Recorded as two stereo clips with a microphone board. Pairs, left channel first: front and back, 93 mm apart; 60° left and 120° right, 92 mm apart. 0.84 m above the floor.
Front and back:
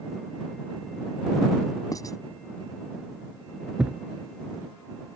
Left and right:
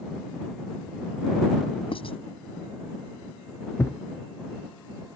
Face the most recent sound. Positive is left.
turn(degrees=105)